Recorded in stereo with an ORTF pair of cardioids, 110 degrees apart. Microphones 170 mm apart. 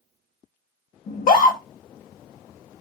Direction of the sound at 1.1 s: 55° left.